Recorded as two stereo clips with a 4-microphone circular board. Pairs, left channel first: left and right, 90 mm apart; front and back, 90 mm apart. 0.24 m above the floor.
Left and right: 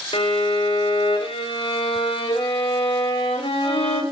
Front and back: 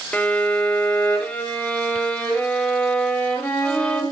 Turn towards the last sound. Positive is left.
turn(degrees=70)